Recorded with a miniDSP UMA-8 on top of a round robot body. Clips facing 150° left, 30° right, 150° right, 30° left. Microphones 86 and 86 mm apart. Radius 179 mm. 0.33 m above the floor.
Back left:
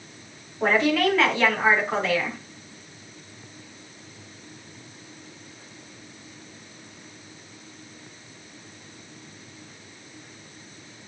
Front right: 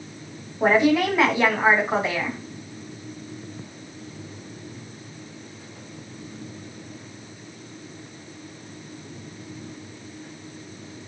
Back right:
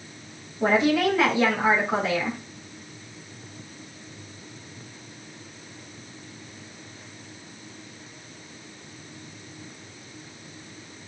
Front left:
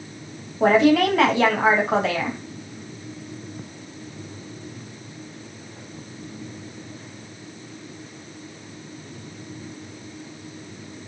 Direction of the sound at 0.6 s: 45° left.